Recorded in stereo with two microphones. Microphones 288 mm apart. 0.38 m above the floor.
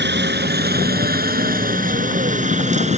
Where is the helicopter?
35° right (ahead or behind); by 3.0 s 25° right (ahead or behind).